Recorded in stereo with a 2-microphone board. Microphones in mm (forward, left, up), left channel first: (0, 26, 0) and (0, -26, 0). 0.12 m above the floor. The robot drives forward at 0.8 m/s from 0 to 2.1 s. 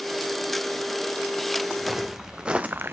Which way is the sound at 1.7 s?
Centre (ahead or behind).